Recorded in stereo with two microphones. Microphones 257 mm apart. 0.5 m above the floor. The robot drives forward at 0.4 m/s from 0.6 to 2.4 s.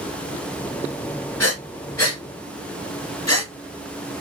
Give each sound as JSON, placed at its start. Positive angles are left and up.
{"t": 1.4, "sound": "breathing", "side_deg": 70, "distance_m": 1.2}